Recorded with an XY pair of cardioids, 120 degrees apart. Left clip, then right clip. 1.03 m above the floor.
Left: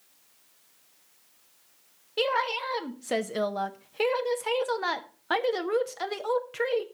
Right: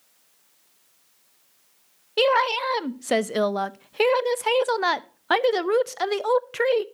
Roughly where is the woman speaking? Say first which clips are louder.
Right 7 dB; ahead right.